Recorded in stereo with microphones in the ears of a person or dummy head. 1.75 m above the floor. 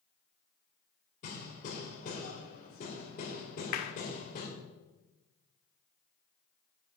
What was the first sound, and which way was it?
Hammering, 50° left (ahead or behind).